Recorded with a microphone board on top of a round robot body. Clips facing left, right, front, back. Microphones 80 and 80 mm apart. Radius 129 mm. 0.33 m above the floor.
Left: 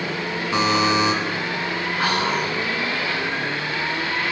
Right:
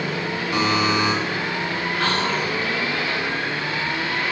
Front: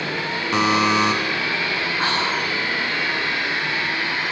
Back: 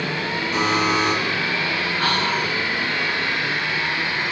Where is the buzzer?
20° left, 0.8 m.